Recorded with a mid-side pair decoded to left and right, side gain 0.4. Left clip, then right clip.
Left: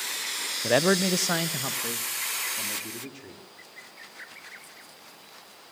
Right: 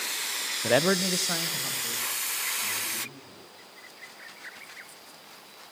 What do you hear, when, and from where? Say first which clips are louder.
0.6 s a man speaking: left 1 dB; 10° right, 0.7 m; by 3.4 s 80° left, 4.5 m